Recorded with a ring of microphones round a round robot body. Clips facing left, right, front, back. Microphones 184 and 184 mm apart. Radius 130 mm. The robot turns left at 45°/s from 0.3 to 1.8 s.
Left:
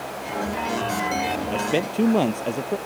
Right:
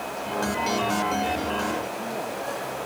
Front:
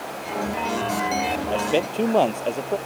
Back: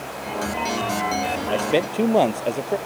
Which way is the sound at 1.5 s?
115° left.